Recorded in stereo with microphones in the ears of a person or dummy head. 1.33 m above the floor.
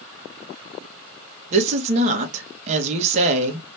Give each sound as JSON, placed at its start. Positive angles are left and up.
{"t": 1.5, "sound": "a woman speaking", "side_deg": -40, "distance_m": 1.5}